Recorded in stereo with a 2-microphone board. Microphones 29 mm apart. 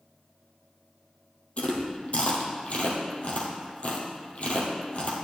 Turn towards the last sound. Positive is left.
turn(degrees=50)  # may be behind; listen again after turning